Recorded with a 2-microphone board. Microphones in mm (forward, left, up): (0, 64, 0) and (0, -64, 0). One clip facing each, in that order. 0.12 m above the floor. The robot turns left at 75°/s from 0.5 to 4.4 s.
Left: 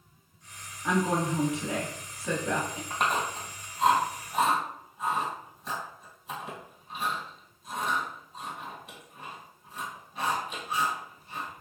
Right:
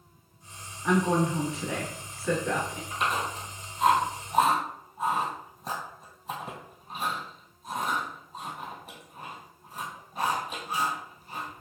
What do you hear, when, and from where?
0.8 s a woman speaking: 5° left (ahead or behind), 1.3 m
2.9 s chewing: 60° left (ahead or behind), 1.6 m; by 11.6 s 45° right (ahead or behind), 1.6 m